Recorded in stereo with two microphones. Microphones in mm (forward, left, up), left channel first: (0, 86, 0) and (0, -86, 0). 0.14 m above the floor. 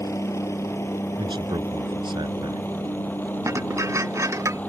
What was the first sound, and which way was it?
A helicopter, 15° left (ahead or behind).